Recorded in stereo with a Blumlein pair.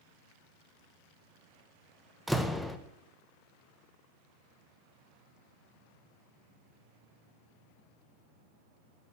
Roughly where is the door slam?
Ahead.